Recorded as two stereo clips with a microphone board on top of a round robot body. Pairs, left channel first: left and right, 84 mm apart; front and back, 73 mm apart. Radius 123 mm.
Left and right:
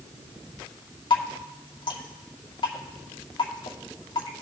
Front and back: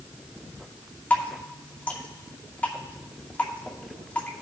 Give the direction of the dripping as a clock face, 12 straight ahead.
10 o'clock.